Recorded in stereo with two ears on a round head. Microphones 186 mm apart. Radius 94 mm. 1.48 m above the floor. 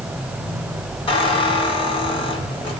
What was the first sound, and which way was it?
A squeak, 30° left (ahead or behind).